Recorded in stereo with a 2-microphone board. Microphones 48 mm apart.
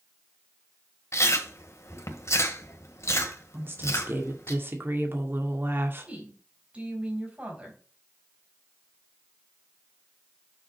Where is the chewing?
75° left (ahead or behind), 1.6 m.